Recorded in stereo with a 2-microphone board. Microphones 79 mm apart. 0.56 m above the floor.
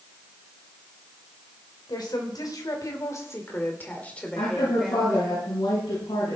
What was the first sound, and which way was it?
A woman speaking, 60° left (ahead or behind).